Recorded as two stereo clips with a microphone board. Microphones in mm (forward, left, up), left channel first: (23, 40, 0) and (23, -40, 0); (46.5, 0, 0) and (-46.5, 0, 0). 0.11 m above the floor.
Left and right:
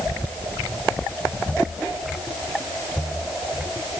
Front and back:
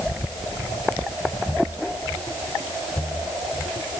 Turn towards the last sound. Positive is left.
No sound to turn to.